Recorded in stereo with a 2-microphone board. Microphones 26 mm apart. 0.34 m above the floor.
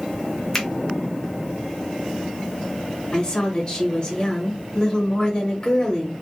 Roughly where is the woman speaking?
Left.